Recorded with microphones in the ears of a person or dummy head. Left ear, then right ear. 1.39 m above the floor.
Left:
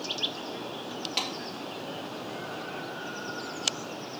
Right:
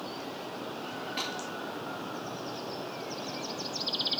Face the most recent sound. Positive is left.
turn(degrees=45)  # may be behind; listen again after turning